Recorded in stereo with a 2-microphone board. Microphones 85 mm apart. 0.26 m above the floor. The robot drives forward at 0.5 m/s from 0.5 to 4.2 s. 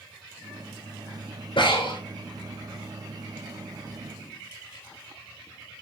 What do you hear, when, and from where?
1.6 s breathing: 65° left (ahead or behind), 4.5 m; by 2.0 s 60° left (ahead or behind), 4.5 m